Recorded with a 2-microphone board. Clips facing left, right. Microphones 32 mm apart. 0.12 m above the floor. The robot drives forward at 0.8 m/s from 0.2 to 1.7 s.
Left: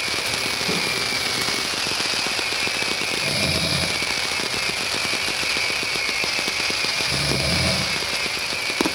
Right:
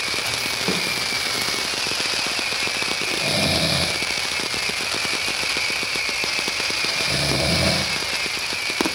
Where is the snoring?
55° right (ahead or behind), 3 m.